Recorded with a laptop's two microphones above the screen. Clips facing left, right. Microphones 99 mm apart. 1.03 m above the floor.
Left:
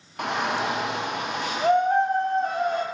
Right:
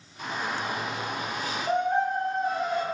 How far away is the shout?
About 0.6 m.